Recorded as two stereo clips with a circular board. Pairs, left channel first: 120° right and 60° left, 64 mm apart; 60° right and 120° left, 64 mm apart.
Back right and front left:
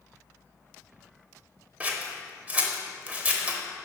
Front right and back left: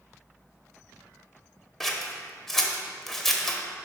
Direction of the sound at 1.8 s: 20° left.